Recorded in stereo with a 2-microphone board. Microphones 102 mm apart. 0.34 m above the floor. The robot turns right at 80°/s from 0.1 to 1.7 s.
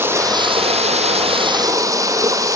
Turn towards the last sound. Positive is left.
turn(degrees=-30)